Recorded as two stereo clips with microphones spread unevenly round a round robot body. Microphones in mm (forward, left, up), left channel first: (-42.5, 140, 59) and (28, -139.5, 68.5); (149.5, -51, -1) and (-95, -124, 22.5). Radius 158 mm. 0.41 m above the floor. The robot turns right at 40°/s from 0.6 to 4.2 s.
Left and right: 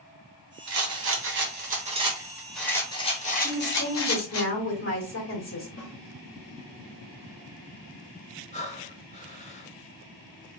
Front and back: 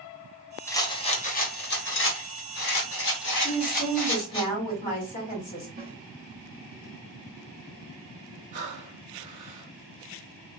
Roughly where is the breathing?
Behind.